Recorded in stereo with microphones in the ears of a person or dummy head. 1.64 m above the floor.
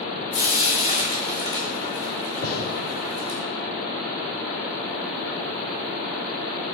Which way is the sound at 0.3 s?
45° left (ahead or behind).